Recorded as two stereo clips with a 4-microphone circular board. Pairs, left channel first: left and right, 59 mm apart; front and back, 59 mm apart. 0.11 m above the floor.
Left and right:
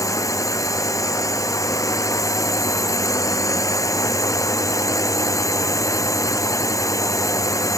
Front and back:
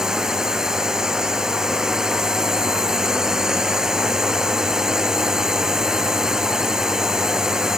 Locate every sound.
0.0 s a drone: 100° left